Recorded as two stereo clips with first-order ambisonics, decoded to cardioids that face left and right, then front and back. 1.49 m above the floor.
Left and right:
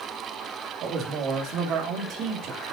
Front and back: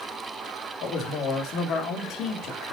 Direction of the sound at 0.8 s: 45° right.